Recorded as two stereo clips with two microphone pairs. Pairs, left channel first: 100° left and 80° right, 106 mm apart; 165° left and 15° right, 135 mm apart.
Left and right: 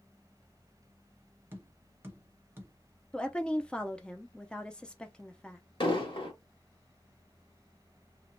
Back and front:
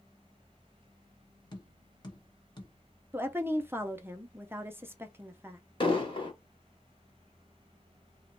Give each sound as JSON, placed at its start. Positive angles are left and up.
{"t": 1.5, "sound": "tapping", "azimuth_deg": -145, "distance_m": 1.1}
{"t": 3.1, "sound": "a woman speaking", "azimuth_deg": 30, "distance_m": 0.5}
{"t": 5.8, "sound": "an explosion", "azimuth_deg": 125, "distance_m": 1.2}